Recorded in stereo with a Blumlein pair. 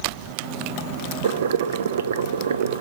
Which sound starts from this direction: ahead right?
Boiling, at 1.2 s.